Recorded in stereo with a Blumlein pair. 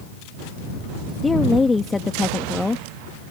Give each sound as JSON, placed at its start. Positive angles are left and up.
{"t": 1.2, "sound": "a woman speaking", "azimuth_deg": 10}